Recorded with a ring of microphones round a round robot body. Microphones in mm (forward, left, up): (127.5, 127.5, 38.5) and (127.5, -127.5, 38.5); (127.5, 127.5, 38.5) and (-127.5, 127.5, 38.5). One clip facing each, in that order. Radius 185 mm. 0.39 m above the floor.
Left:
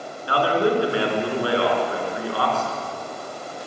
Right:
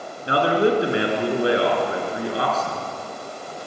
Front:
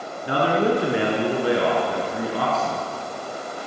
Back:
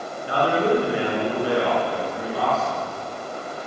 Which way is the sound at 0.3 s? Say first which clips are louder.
Right 2 dB, even; 25° right.